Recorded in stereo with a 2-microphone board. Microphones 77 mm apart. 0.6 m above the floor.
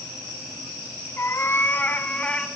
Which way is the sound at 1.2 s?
35° left (ahead or behind).